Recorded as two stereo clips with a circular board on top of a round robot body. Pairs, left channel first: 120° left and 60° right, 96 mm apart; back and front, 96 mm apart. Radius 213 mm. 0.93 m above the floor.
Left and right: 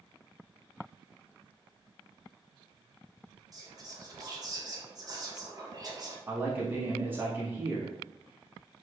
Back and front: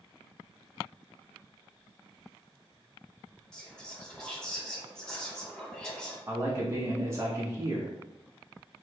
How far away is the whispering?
About 1.3 m.